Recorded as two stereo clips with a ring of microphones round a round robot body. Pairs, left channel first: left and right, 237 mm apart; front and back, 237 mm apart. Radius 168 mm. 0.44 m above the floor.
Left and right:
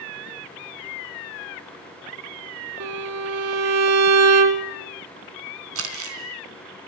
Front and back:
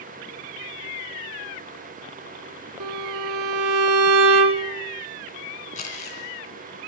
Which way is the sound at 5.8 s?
70° right.